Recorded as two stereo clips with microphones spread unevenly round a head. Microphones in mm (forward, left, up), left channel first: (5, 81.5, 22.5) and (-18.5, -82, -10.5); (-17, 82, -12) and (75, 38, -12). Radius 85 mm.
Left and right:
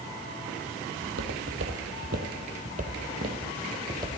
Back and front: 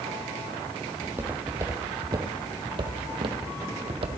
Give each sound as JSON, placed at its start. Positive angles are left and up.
{"t": 1.0, "sound": "footsteps", "azimuth_deg": -100, "distance_m": 1.6}